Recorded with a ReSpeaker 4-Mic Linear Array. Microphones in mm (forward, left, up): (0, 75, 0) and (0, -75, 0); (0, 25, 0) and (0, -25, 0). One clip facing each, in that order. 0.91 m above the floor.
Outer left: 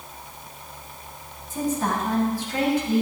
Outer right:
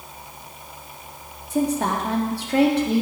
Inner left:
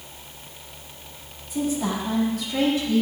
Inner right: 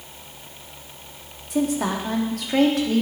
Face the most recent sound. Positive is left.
turn(degrees=-75)  # may be behind; listen again after turning